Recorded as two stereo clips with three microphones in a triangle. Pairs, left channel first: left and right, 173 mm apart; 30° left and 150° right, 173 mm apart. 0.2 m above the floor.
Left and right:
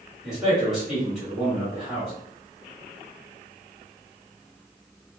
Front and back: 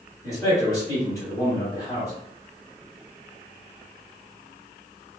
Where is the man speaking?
5° right, 1.7 m.